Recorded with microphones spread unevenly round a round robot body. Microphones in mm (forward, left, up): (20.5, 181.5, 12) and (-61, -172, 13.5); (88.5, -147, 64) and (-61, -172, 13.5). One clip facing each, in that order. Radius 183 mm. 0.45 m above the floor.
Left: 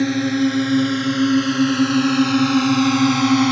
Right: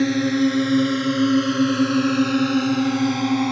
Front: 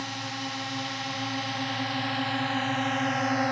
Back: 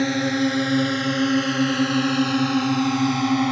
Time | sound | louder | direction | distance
0.0 | a drone | left 1 dB, back 16 dB | 165° left | ?